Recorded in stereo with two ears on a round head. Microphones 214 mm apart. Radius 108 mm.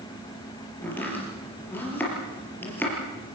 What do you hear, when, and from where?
0.8 s chopping: 10° left (ahead or behind), 5.5 m